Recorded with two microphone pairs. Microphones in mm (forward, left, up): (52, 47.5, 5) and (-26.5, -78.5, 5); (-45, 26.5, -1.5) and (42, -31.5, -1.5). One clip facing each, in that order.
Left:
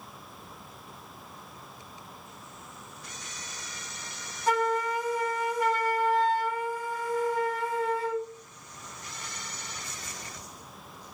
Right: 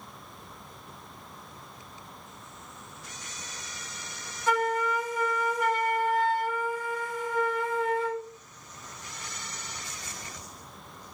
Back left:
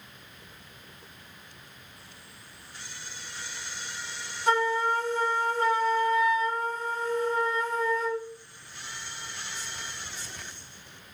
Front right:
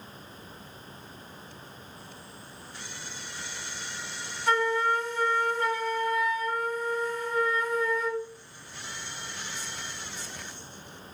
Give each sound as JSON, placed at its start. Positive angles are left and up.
{"t": 4.5, "sound": "a flute", "azimuth_deg": 95, "distance_m": 0.8}